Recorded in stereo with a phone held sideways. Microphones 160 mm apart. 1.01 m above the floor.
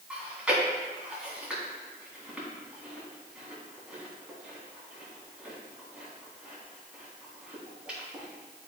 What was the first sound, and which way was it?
Chewing, 5° right (ahead or behind).